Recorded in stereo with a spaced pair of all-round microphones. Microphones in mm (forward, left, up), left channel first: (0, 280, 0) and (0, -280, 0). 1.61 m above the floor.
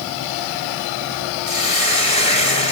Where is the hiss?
75° right (ahead or behind), 7 m.